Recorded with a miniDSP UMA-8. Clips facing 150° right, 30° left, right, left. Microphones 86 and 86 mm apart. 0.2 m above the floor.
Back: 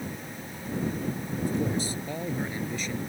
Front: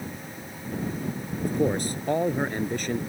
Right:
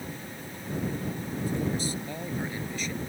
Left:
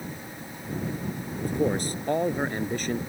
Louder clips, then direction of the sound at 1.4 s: Front 4 dB, left 5 dB; 60° left.